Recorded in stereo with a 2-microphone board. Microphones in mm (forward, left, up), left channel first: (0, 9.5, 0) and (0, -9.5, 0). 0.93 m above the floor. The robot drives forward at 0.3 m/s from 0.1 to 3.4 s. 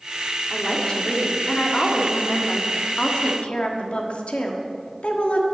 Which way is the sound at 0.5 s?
45° left (ahead or behind).